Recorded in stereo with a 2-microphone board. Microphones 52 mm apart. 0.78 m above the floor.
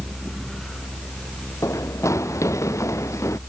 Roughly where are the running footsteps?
Left.